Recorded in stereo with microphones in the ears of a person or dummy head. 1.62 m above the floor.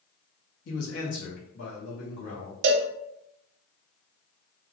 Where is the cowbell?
65° right (ahead or behind), 0.5 m.